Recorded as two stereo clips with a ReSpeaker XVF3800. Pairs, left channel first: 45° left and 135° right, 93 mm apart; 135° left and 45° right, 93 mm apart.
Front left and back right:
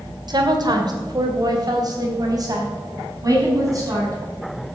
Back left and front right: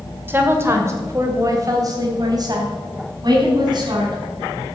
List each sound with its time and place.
0.3 s a woman speaking: 105° right, 2 m; by 4.7 s 80° right, 6 m